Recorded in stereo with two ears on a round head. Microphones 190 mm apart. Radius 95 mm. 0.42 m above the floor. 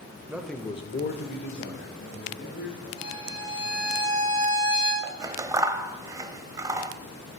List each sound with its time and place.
0.3 s a man speaking: 10° right (ahead or behind), 1.2 m; by 2.9 s 50° left (ahead or behind), 3.5 m
3.0 s a violin: 85° left, 5 m
5.0 s scissors: 15° right (ahead or behind), 0.5 m